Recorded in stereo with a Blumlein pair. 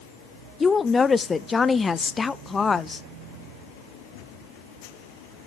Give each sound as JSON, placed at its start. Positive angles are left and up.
{"t": 0.6, "sound": "a woman speaking", "azimuth_deg": 15, "distance_m": 0.7}